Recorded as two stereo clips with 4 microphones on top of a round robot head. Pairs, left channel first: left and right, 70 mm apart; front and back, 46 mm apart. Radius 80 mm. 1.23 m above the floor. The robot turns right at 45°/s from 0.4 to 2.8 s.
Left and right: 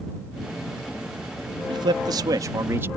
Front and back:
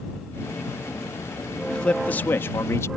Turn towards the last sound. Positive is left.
turn(degrees=-30)